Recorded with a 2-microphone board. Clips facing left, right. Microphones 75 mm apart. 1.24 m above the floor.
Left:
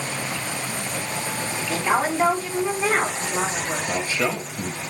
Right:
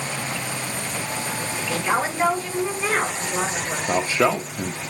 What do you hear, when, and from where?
1.7 s a woman speaking: 20° left (ahead or behind), 3.5 m
3.9 s a man speaking: 45° right (ahead or behind), 0.5 m